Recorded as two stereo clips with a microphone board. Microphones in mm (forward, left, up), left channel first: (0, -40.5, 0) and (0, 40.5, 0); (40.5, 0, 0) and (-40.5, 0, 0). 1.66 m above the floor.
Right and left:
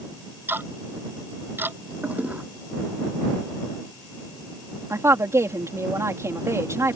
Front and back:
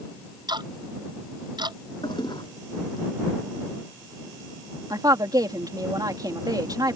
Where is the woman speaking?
145° left.